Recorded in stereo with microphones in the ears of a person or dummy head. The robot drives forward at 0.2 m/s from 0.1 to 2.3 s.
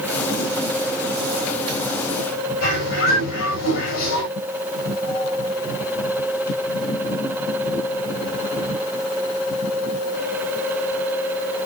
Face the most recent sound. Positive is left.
turn(degrees=85)